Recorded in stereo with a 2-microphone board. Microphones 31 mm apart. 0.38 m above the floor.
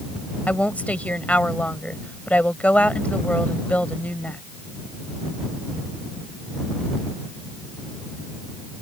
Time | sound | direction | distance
0.5 | a woman speaking | 50° left (ahead or behind) | ?